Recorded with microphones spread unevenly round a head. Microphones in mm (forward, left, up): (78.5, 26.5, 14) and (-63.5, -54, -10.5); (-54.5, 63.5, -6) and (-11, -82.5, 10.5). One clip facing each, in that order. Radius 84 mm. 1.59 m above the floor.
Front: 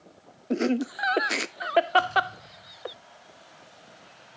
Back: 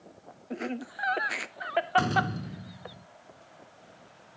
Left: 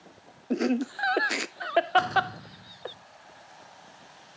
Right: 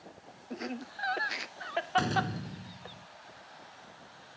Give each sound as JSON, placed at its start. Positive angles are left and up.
{"t": 0.5, "sound": "laughter", "azimuth_deg": 75}
{"t": 2.0, "sound": "a door slam", "azimuth_deg": -135}